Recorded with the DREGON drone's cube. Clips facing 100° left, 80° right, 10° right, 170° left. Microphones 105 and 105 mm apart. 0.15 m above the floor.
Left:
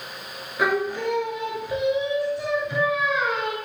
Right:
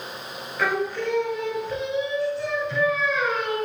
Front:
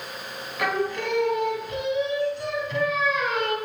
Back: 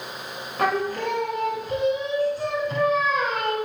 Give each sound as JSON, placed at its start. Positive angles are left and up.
{"t": 0.6, "sound": "singing", "azimuth_deg": 160, "distance_m": 0.6}